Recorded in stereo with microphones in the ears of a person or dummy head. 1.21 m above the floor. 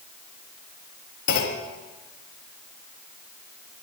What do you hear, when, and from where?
1.3 s a clunk: 55° left (ahead or behind), 0.8 m